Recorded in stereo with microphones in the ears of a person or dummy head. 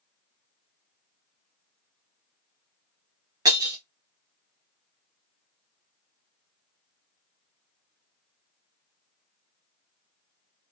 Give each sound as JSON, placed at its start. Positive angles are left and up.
{"t": 3.5, "sound": "breaking glass", "side_deg": -20, "distance_m": 1.6}